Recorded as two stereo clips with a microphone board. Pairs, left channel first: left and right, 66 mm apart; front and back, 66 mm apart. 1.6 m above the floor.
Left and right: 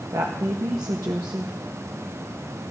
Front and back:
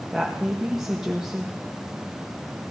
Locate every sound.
0.1 s a woman speaking: 100° right, 1.0 m